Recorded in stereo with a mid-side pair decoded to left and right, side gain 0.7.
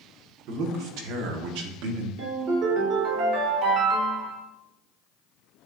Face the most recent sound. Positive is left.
turn(degrees=-60)